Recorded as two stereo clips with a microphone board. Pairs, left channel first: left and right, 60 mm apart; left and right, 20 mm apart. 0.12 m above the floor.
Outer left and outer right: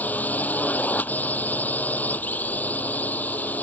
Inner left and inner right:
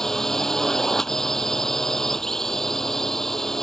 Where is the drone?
25° left (ahead or behind).